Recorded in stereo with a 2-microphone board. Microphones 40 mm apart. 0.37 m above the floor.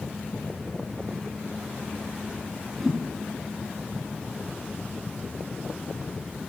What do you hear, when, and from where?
2.8 s a whoosh: centre (ahead or behind), 1.3 m